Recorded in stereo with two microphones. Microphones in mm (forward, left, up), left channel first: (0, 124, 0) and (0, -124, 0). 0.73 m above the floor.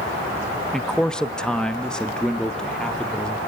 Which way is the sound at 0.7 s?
Centre (ahead or behind).